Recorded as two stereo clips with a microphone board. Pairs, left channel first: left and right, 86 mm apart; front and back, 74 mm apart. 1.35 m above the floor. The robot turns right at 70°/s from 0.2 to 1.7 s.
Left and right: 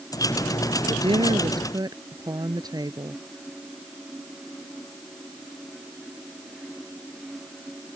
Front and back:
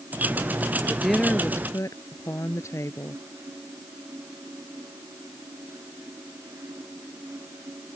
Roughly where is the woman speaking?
Right.